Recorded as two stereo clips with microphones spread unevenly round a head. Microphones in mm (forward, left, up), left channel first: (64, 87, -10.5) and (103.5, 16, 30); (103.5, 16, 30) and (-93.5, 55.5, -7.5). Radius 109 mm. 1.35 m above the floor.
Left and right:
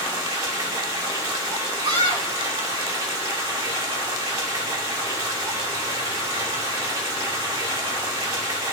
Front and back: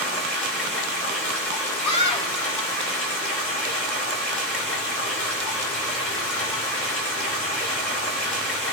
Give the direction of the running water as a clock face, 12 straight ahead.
3 o'clock.